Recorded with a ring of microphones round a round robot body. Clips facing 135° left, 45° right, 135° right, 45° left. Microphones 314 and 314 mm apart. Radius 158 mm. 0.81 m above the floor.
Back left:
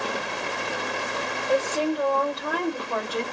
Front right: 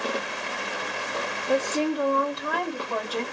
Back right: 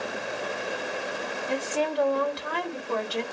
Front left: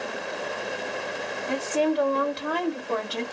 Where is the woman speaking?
20° left, 1.3 m; by 3.2 s 60° left, 2 m.